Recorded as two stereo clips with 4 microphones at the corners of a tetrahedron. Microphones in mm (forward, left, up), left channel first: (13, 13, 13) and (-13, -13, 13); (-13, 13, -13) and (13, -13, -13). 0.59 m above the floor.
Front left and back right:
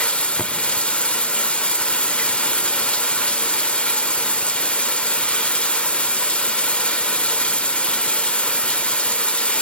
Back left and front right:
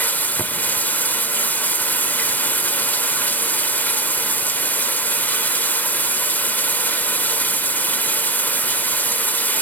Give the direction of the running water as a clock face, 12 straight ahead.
9 o'clock.